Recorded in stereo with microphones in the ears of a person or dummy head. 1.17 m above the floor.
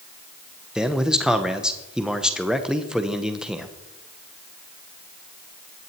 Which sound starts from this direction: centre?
A man speaking, at 0.8 s.